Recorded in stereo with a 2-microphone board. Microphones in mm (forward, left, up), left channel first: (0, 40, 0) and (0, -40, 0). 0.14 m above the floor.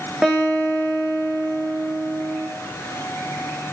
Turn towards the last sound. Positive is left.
turn(degrees=-5)  # may be behind; listen again after turning